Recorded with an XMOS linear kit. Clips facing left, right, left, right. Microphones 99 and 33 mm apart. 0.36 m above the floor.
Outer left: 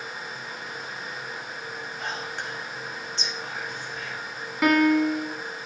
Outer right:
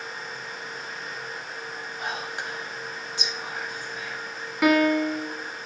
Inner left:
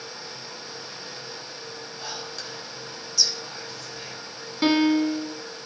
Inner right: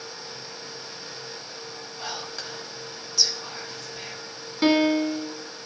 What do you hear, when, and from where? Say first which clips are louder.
2.0 s whispering: outer right 2 dB, inner right 2 dB; 10° right (ahead or behind), 1.3 m
4.6 s a piano: outer left 1 dB, even; centre (ahead or behind), 0.6 m